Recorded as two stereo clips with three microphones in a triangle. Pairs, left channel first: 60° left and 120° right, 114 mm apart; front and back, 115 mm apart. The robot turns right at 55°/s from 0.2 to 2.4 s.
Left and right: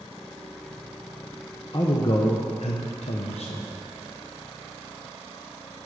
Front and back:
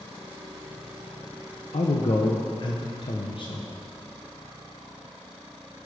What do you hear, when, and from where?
1.7 s a man speaking: 5° left, 0.9 m; by 3.8 s 40° left, 0.9 m